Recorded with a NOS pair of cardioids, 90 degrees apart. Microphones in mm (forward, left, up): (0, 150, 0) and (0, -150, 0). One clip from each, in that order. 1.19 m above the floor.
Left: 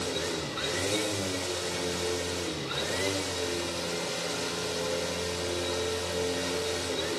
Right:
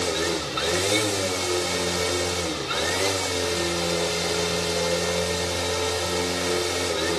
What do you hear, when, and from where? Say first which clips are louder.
0.0 s a machine running: right 7 dB; 45° right, 3 m